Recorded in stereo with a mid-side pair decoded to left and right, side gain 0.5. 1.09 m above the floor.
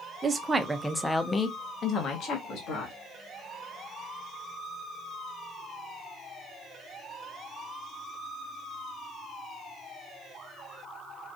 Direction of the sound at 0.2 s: 35° right.